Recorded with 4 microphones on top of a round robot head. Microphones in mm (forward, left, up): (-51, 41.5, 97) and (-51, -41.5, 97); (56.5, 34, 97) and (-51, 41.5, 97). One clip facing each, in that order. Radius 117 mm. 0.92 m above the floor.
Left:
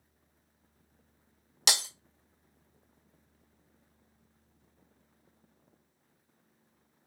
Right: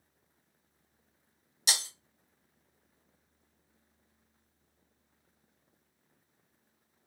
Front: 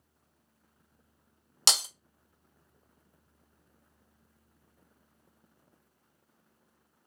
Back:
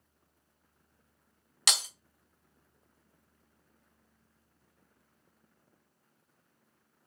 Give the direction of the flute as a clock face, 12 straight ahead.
No flute in this recording.